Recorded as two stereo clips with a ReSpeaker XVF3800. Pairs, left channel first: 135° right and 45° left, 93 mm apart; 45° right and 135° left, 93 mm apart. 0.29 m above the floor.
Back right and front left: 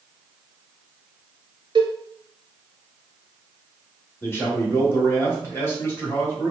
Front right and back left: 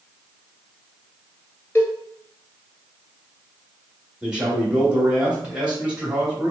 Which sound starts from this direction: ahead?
A cowbell, at 1.8 s.